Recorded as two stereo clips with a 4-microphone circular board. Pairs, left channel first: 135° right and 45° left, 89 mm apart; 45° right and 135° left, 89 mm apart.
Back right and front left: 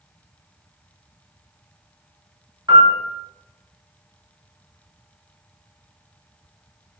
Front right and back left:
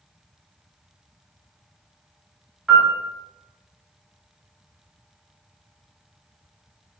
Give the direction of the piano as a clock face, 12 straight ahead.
10 o'clock.